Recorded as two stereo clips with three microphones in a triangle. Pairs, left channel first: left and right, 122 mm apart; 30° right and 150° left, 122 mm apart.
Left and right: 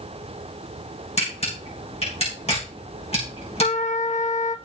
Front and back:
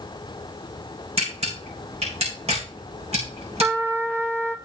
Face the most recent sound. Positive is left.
turn(degrees=80)